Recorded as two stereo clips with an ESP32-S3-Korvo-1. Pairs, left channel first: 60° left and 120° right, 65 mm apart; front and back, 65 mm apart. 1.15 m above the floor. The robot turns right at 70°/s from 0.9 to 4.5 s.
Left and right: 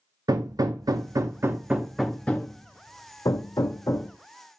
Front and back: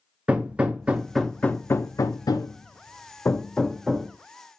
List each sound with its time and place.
0.3 s hammering: 110° right, 0.5 m; by 4.1 s 115° left, 0.5 m